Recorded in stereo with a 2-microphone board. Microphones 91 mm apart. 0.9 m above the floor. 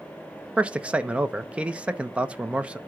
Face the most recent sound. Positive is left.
turn(degrees=-15)  # may be behind; listen again after turning